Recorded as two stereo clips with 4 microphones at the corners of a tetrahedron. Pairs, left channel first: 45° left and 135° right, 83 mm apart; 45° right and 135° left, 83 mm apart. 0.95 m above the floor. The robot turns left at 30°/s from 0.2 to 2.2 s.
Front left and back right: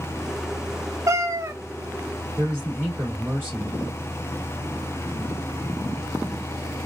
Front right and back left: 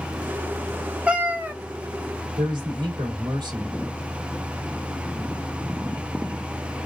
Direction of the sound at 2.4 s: 155° left.